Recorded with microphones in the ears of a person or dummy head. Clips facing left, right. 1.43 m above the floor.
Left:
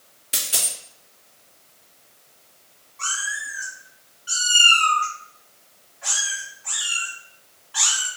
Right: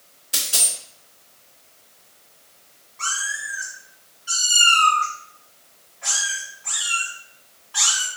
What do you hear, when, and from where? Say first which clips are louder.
0.3 s a dropped coin: right 1 dB; 30° left (ahead or behind), 1.3 m
3.0 s a cat meowing: right 1 dB; 10° left (ahead or behind), 2.5 m